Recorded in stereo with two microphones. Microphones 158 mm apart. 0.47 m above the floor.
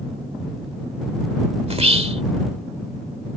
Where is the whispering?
40° right (ahead or behind).